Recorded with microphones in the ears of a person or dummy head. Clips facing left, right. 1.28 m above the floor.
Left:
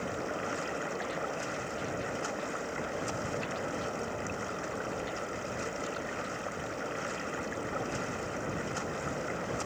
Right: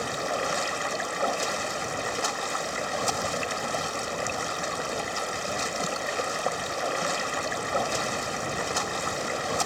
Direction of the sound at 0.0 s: 85° right.